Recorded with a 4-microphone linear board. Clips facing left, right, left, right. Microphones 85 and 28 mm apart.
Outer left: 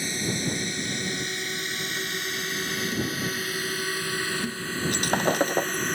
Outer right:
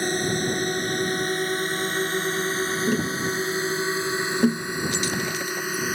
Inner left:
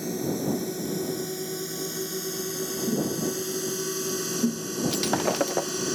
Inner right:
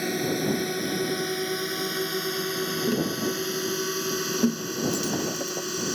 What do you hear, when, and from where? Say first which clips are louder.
0.0 s a drone: outer right 5 dB, inner right 2 dB; 55° right (ahead or behind); by 6.0 s 5° right (ahead or behind)
2.9 s tapping: outer right 5 dB, inner left 1 dB; 65° right (ahead or behind)
4.9 s breaking glass: outer left 3 dB, inner left 2 dB; 55° left (ahead or behind)